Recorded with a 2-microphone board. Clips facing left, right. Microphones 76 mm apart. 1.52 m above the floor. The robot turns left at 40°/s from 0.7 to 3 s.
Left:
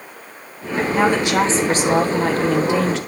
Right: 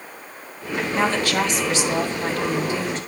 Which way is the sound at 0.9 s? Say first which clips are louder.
Left 4 dB; 175° left.